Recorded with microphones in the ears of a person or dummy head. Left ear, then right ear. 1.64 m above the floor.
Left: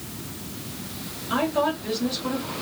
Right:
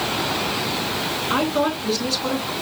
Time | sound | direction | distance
1.3 | a woman speaking | 80° right | 3.5 m